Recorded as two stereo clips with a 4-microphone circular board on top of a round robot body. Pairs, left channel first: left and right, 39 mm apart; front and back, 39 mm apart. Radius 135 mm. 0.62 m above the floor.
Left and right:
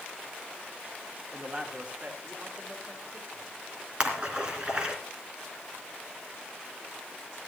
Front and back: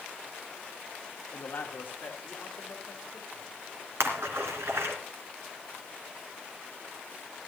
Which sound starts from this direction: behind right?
A splash, at 4.0 s.